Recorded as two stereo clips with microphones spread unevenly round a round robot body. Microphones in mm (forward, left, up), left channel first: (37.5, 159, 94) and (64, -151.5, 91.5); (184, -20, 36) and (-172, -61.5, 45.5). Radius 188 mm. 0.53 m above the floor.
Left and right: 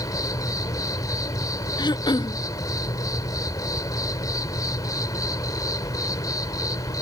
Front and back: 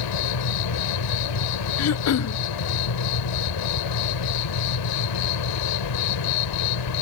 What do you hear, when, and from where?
0.0 s an insect: 15° left
1.8 s throat clearing: 25° left